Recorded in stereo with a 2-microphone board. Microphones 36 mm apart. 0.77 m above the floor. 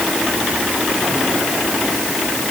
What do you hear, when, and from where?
Only background noise.